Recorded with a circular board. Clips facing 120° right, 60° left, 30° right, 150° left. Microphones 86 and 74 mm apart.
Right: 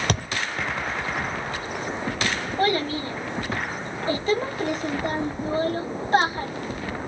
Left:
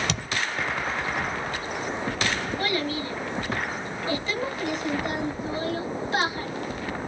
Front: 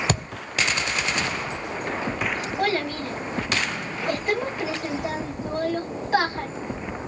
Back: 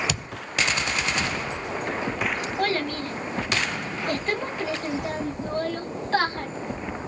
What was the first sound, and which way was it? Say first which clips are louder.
A thud: right 5 dB, front 5 dB; 75° right.